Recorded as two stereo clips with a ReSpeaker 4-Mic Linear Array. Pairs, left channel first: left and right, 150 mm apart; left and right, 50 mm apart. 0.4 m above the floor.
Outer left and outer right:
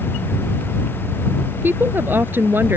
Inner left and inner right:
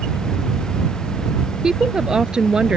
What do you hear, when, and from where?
1.6 s a woman speaking: 15° right (ahead or behind)